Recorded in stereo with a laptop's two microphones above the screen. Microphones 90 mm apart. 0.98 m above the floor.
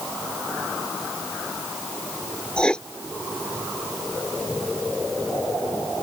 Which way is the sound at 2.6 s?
10° left (ahead or behind).